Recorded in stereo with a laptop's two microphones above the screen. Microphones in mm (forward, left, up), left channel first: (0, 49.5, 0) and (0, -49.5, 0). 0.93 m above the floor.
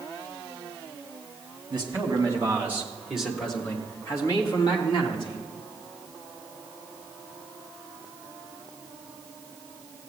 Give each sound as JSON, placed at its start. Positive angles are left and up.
{"t": 1.7, "sound": "a man speaking", "side_deg": -40, "distance_m": 2.0}